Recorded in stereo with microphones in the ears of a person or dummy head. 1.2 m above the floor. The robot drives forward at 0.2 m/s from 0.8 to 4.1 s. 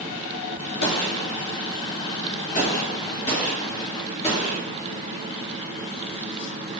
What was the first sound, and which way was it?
A gunshot, 50° left (ahead or behind).